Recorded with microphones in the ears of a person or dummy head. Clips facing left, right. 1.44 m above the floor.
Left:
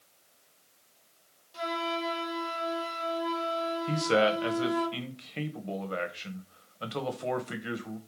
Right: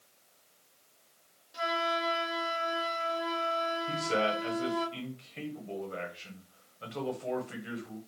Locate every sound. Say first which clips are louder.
1.5 s a flute: even; 20° right (ahead or behind), 1.4 m
3.9 s a man speaking: left 7 dB; 75° left (ahead or behind), 0.9 m